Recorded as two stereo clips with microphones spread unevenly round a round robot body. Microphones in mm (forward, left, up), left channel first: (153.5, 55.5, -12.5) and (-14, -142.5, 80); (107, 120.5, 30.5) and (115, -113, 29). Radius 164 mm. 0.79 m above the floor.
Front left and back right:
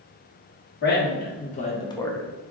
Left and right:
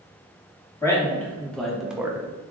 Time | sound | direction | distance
0.8 | a man speaking | 10° left | 1.4 m